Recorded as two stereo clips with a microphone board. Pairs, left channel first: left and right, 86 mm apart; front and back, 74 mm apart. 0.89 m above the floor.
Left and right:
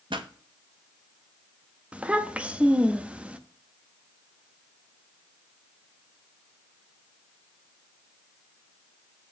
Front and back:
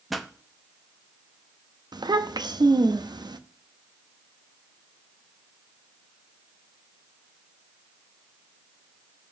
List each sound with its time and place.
0.1 s a pop: 90° right, 0.6 m
1.9 s a child speaking: 165° right, 0.6 m